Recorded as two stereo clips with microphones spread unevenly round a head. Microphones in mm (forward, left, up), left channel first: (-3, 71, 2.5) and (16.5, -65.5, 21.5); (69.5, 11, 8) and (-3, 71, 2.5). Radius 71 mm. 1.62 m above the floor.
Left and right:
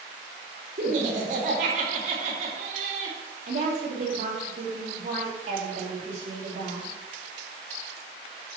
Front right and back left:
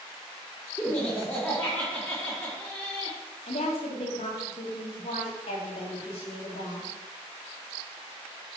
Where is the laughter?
120° right, 3 m.